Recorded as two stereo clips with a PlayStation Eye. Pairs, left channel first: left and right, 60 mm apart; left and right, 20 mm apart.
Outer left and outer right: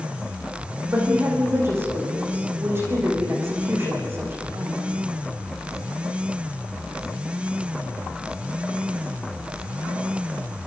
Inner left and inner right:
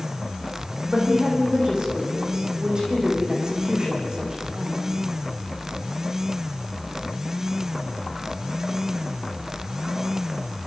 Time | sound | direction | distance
0.9 | a woman speaking | 40° right (ahead or behind) | 7 m